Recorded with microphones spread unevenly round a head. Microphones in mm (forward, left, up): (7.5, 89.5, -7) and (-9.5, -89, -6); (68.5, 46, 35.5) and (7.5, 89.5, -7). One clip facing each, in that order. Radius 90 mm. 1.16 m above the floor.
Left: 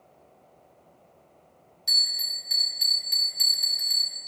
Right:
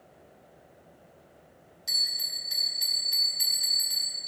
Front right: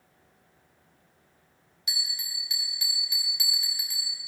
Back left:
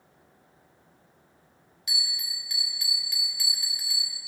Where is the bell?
20° left, 3 m.